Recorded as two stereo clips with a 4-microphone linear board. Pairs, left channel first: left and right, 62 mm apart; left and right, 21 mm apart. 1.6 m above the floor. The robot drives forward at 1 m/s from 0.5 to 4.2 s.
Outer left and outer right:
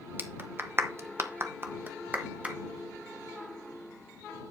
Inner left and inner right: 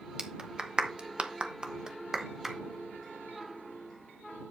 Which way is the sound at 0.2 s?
35° right (ahead or behind).